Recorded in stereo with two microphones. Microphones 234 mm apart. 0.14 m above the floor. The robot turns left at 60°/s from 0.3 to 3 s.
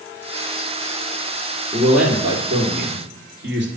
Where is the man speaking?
15° left, 2.5 m; by 3.7 s 60° right, 2.5 m.